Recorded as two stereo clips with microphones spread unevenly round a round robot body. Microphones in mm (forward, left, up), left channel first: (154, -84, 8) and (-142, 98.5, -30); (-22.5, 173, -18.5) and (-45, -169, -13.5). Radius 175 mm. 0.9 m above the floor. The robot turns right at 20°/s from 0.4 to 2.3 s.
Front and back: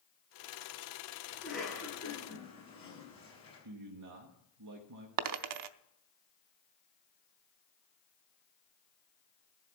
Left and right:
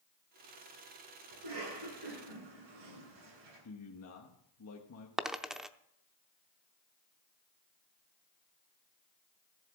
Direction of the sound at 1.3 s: 125° right.